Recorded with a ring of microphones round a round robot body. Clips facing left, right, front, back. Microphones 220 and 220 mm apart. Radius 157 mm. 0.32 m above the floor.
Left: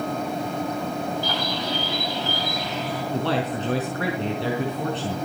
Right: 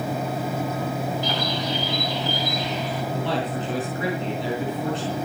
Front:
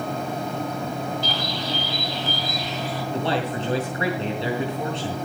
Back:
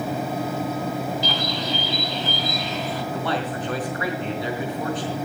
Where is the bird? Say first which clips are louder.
Right 1 dB, back 2 dB; 165° right, 4.5 m.